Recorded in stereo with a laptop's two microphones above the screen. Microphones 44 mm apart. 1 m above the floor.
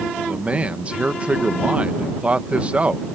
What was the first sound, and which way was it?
A man speaking, 30° right (ahead or behind).